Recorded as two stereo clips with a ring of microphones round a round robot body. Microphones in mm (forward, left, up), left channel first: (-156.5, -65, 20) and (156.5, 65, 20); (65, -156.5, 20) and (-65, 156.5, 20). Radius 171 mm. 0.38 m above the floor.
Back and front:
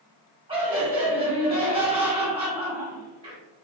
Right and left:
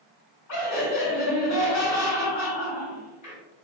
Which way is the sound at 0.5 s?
50° right.